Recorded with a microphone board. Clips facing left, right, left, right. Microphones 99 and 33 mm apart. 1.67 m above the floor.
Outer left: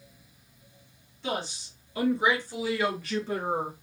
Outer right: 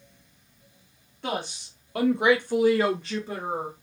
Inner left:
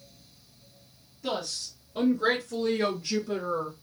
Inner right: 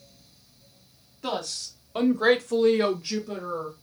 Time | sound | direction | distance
1.2 | a woman speaking | 65° right (ahead or behind) | 1.6 m